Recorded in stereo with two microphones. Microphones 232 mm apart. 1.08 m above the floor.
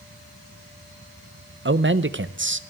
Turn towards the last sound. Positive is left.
turn(degrees=-55)  # may be behind; listen again after turning